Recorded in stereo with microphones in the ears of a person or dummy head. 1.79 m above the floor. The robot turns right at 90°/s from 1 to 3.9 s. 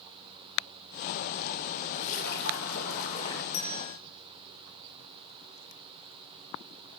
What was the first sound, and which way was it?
A splash, 30° left.